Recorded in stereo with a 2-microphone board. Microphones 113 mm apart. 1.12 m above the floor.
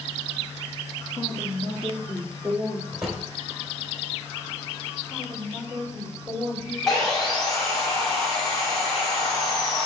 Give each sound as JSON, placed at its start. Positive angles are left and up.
{"t": 1.2, "sound": "a woman speaking", "side_deg": 20, "distance_m": 1.3}
{"t": 2.9, "sound": "a drawer", "side_deg": -5, "distance_m": 2.5}
{"t": 5.1, "sound": "a woman speaking", "side_deg": 0, "distance_m": 5.0}
{"t": 6.9, "sound": "sawing", "side_deg": 5, "distance_m": 2.5}